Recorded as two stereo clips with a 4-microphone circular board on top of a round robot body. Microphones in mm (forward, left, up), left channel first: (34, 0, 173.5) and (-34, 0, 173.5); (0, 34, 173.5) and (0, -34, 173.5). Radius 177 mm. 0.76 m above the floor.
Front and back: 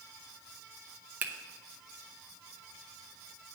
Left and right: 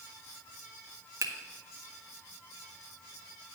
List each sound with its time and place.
1.2 s a finger snap: 120° right, 1.4 m